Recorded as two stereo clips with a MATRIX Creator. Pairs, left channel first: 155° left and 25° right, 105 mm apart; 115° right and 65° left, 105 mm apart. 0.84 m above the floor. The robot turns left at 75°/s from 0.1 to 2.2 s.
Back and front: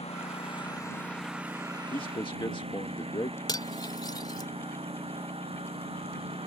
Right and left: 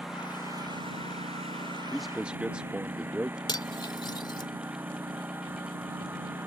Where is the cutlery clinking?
155° right.